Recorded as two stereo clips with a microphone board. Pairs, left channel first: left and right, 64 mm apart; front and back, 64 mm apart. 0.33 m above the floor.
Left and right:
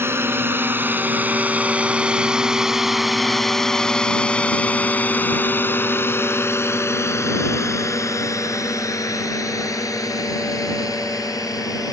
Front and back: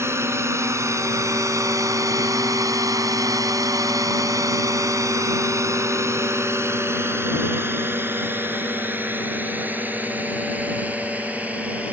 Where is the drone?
135° right; by 11.9 s 110° left.